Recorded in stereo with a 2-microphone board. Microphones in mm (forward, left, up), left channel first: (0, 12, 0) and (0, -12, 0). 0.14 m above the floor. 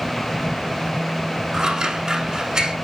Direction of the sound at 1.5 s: 30° right (ahead or behind).